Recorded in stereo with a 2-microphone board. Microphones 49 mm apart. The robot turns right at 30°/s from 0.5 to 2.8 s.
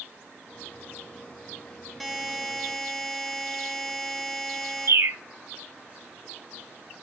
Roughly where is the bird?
Right.